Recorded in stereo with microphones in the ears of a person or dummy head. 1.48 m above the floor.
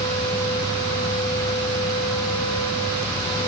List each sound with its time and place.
Only background noise.